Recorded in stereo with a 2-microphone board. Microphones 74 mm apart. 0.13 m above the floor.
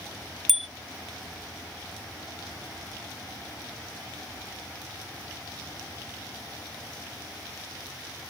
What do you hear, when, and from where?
0.5 s a bicycle bell: centre (ahead or behind)